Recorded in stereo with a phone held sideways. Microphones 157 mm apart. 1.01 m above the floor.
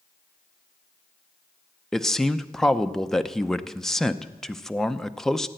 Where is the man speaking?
5° left (ahead or behind), 0.6 m.